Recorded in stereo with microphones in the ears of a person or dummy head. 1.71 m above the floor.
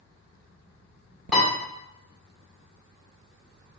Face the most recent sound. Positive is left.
turn(degrees=0)  # may be behind; listen again after turning